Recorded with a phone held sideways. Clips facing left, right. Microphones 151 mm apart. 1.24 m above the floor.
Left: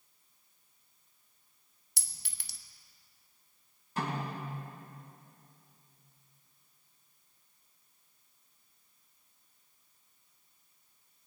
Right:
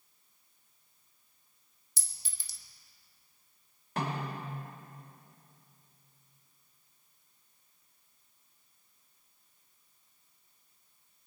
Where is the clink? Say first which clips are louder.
Left 4 dB; 65° left (ahead or behind), 0.7 m.